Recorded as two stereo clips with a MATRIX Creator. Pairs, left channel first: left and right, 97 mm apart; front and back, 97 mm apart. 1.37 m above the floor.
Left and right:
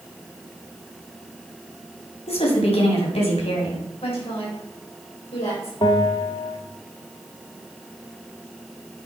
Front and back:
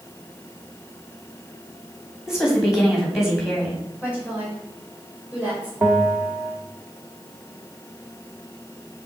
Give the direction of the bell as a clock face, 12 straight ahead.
8 o'clock.